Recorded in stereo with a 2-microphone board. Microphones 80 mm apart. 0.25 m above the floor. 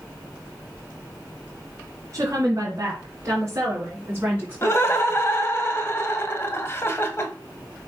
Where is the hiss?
No hiss in this recording.